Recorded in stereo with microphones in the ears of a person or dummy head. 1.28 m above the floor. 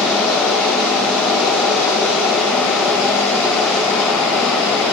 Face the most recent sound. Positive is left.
turn(degrees=5)  # may be behind; listen again after turning